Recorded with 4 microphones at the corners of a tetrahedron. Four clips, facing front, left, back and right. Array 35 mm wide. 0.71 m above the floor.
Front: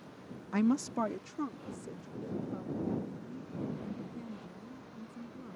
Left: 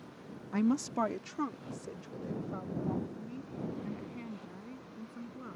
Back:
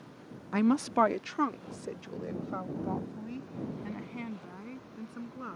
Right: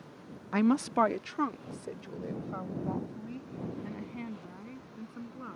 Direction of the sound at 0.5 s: 105° right.